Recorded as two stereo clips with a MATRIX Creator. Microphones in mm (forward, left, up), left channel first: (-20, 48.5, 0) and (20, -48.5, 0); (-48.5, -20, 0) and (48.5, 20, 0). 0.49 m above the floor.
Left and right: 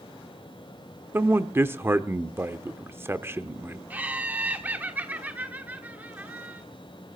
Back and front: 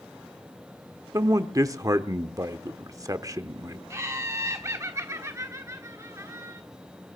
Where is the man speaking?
15° right, 1.0 m.